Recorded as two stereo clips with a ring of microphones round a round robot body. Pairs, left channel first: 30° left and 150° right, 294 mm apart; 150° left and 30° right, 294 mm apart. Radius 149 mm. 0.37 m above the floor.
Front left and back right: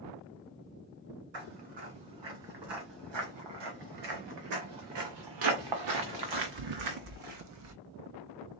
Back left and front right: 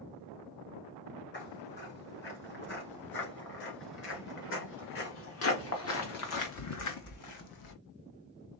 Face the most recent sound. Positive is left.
turn(degrees=170)